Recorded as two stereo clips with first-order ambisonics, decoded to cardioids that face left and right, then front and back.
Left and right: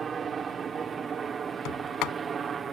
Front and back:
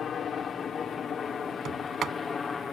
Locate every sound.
0.0 s a helicopter: 40° right; by 2.7 s 50° right
1.6 s a sliding door: 120° left